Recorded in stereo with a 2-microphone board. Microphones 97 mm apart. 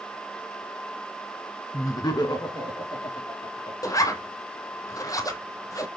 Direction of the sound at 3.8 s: 35° left (ahead or behind).